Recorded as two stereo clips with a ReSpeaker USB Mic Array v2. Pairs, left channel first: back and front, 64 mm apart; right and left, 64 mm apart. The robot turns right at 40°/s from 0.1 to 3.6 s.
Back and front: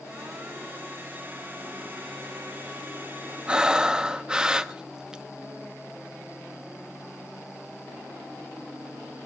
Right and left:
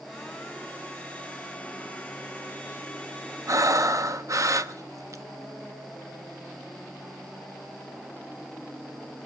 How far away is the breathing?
About 0.9 m.